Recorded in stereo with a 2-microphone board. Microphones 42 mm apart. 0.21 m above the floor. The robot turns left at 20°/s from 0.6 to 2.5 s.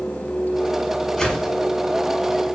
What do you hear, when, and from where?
1.2 s a whoosh: 10° left (ahead or behind), 1.0 m; by 1.5 s 15° left (ahead or behind), 1.0 m